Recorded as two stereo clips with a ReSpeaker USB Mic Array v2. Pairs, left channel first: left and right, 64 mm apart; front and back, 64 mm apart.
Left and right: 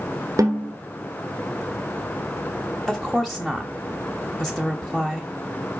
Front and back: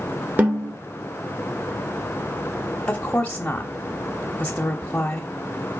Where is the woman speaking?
10° left, 0.9 m.